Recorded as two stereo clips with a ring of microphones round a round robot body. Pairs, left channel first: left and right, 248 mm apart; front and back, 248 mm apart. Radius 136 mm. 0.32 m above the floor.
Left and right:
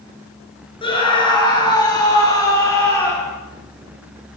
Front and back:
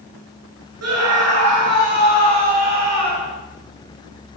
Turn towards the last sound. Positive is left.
turn(degrees=170)